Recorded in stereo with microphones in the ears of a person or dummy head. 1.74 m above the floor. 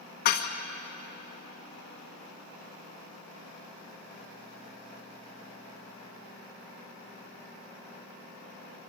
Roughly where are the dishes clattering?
Left.